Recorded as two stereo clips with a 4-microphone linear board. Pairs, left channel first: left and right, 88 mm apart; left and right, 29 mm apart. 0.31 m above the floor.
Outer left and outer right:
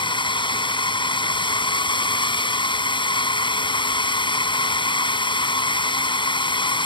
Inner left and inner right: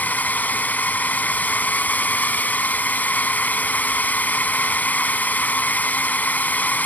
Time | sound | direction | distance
0.0 | a drone | 60° left (ahead or behind) | ?